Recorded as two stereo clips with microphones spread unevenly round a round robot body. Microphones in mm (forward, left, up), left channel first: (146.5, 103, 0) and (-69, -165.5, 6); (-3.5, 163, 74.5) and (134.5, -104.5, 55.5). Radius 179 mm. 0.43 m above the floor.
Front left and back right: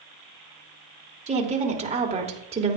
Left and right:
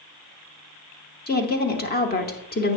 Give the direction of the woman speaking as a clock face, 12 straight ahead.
6 o'clock.